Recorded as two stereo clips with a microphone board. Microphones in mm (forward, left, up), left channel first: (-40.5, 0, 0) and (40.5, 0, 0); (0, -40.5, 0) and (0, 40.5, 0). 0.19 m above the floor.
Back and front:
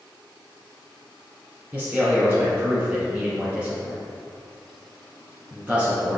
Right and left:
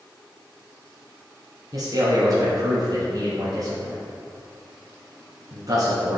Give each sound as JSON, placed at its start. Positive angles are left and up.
{"t": 1.7, "sound": "a man speaking", "azimuth_deg": 70, "distance_m": 1.7}